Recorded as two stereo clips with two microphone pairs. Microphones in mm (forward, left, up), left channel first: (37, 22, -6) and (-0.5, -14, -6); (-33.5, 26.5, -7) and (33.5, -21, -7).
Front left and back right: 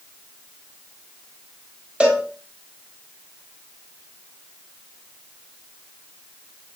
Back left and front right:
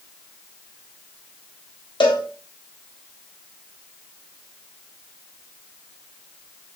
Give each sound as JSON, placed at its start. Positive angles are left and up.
{"t": 2.0, "sound": "a cowbell", "azimuth_deg": 160, "distance_m": 3.0}